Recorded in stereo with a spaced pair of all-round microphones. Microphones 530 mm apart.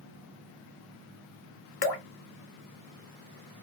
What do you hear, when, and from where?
1.8 s dripping: 50° left (ahead or behind), 0.6 m